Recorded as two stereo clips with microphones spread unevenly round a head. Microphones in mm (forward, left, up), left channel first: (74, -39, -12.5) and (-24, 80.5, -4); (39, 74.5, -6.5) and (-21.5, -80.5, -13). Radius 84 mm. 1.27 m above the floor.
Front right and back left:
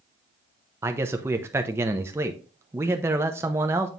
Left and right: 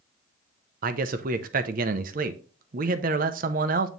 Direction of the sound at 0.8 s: 155° right.